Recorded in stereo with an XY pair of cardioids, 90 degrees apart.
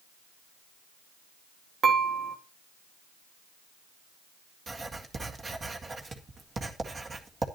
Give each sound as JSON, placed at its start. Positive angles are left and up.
{"t": 1.8, "sound": "dishes clattering", "azimuth_deg": -60, "distance_m": 2.0}
{"t": 4.7, "sound": "writing", "azimuth_deg": -40, "distance_m": 1.9}